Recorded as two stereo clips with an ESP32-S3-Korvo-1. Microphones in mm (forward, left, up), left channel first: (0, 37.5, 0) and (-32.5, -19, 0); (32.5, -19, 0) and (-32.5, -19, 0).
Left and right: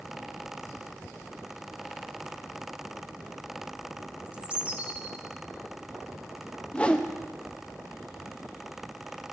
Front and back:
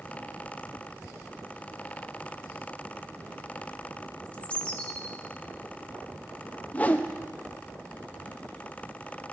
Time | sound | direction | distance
4.2 | a bird | 65° right | 0.9 m
6.7 | a whoosh | 15° left | 0.6 m